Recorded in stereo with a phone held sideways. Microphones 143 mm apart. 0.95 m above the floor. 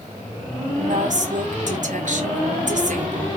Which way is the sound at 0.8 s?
60° right (ahead or behind).